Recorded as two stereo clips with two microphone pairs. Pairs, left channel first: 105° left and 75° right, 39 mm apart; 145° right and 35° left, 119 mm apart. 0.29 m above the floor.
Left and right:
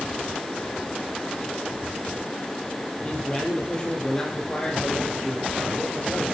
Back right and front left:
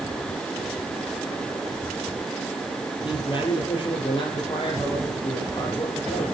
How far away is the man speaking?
About 6.5 m.